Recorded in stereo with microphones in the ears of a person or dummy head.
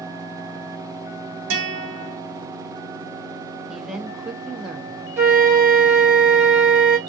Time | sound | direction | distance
1.5 | a guitar | 70° right (ahead or behind) | 0.9 m
3.7 | a woman speaking | centre (ahead or behind) | 0.6 m
5.2 | a flute | 5° right (ahead or behind) | 0.6 m